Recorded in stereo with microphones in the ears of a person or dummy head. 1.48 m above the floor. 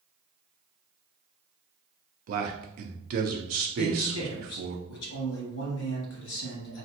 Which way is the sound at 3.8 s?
85° left.